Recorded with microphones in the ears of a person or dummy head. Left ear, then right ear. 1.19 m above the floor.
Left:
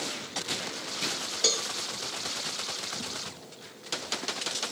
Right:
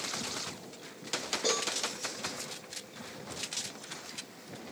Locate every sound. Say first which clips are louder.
1.4 s a cowbell: left 5 dB; 60° left (ahead or behind), 1.3 m